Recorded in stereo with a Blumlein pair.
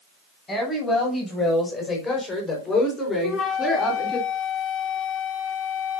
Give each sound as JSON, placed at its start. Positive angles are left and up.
{"t": 0.5, "sound": "a woman speaking", "azimuth_deg": 15, "distance_m": 7.0}
{"t": 3.2, "sound": "a flute", "azimuth_deg": 0, "distance_m": 3.0}